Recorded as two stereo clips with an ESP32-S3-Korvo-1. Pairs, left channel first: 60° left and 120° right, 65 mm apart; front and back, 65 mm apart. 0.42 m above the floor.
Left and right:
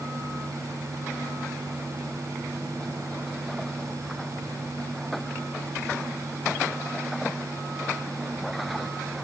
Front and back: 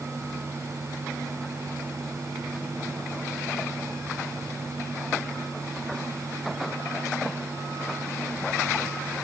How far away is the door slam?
I don't hear a door slam.